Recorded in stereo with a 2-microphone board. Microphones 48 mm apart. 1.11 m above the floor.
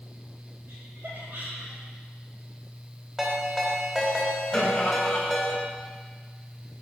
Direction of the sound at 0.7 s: 60° right (ahead or behind).